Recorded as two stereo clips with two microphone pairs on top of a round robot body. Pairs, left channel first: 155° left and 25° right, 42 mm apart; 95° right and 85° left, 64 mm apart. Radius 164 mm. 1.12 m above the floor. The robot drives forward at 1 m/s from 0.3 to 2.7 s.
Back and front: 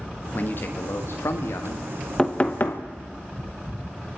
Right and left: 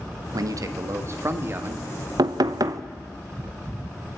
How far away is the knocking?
About 0.8 m.